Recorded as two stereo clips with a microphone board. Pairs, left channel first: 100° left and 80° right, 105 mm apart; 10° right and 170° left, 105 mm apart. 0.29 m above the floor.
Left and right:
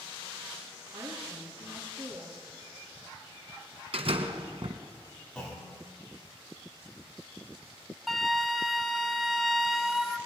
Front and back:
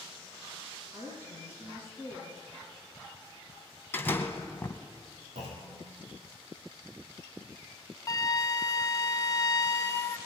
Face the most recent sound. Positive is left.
turn(degrees=10)